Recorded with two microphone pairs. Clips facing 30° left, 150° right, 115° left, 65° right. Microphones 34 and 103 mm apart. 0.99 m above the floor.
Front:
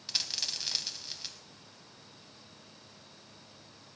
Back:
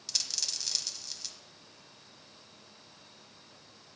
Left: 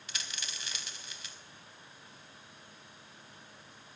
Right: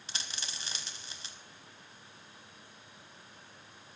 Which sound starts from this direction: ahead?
A dropped coin, at 0.1 s.